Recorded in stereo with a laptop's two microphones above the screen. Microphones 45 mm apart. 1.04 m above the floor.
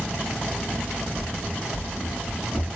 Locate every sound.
1.1 s running footsteps: 65° right (ahead or behind), 3.5 m; by 2.6 s 50° right (ahead or behind), 3 m